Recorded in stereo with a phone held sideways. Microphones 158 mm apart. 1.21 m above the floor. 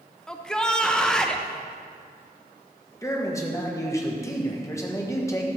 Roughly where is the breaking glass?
I don't hear breaking glass.